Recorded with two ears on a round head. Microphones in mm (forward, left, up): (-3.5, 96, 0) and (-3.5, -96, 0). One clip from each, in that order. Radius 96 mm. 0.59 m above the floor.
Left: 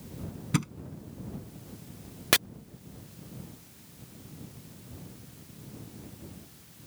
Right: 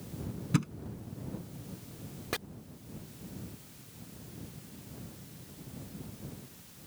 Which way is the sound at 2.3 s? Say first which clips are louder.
Left 12 dB; 65° left (ahead or behind).